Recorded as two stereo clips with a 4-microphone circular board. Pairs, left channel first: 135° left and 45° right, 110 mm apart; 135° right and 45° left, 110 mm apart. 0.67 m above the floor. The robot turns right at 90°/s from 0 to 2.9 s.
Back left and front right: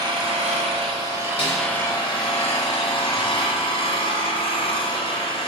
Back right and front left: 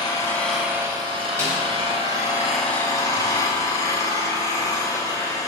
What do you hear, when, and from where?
0.0 s an engine running: 95° right, 1.3 m; by 5.5 s 165° left, 1.3 m
1.4 s a snare drum: 110° left, 2.5 m; by 1.6 s 130° left, 2.5 m